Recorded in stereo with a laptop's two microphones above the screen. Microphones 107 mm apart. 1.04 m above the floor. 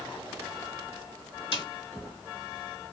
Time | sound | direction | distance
1.5 | a snare drum | 55° left (ahead or behind) | 1.7 m